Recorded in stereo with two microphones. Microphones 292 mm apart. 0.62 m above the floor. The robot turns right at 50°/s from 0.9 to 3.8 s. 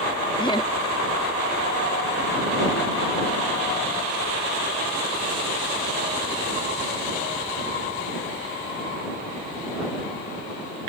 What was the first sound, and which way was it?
Laughter, 15° left (ahead or behind).